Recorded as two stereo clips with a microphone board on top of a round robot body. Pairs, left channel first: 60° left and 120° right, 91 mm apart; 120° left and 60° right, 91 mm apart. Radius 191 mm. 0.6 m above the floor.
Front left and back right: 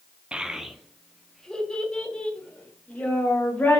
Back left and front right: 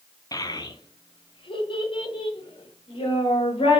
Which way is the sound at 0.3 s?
160° left.